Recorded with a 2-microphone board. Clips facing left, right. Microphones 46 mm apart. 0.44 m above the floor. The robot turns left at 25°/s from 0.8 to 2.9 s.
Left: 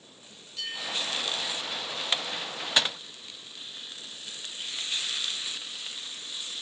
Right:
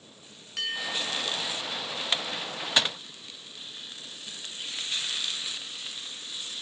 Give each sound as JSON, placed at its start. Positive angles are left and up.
{"t": 0.6, "sound": "a bell", "side_deg": -65, "distance_m": 5.0}